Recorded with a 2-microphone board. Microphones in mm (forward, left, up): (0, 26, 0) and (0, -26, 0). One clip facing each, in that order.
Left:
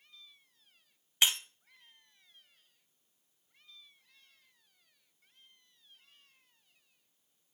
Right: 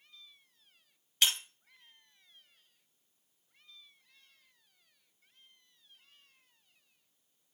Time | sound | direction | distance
1.2 | breaking glass | 20° left (ahead or behind) | 1.5 m